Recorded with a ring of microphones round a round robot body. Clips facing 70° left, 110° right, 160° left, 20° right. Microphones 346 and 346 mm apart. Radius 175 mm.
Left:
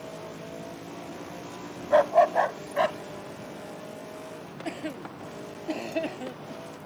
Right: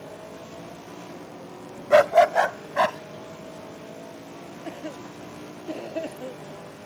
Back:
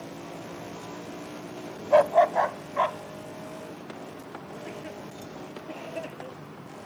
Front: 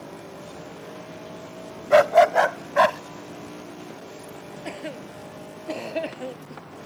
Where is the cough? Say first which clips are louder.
Left 2 dB, front 8 dB; 5° left.